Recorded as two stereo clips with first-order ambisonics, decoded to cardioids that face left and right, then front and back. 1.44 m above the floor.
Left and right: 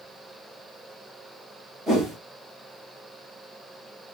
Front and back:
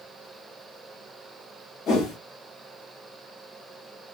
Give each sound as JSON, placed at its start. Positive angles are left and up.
{"t": 1.9, "sound": "a whoosh", "azimuth_deg": -15, "distance_m": 1.1}